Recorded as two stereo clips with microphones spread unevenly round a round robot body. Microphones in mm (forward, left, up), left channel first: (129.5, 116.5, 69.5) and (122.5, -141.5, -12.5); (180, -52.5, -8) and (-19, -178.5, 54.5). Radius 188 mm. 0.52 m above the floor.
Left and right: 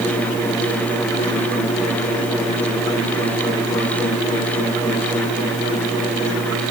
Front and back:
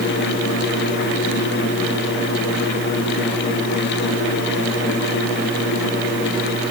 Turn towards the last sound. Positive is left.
No sound to turn to.